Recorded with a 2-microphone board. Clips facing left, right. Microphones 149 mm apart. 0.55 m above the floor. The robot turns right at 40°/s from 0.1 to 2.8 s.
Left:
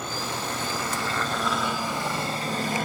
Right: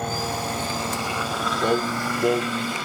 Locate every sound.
0.0 s a helicopter: 50° right (ahead or behind); by 2.9 s 50° left (ahead or behind)
1.6 s singing: 130° right; by 2.8 s 80° right